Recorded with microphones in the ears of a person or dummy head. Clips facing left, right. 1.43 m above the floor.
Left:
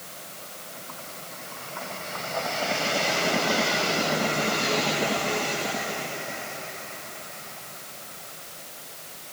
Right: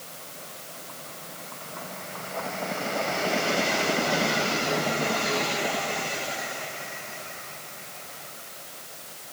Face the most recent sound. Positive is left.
No sound to turn to.